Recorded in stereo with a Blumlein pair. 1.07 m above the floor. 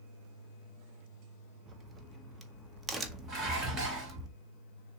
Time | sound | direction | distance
1.7 | a crack | 15° right | 1.0 m
3.3 | dishes clattering | 25° right | 2.5 m